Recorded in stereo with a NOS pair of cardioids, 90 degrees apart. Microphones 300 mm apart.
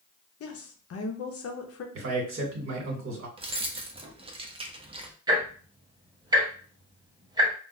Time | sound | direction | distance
0.4 | a woman speaking | 55° left | 0.9 m
1.9 | a man speaking | 50° right | 1.9 m
3.4 | keys jangling | 20° right | 0.7 m
5.3 | ticking | 15° right | 1.1 m